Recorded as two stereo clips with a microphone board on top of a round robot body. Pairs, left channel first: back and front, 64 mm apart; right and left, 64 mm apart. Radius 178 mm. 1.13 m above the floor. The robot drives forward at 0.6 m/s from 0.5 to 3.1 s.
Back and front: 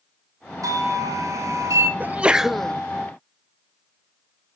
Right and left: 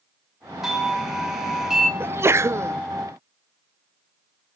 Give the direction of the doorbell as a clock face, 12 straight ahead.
12 o'clock.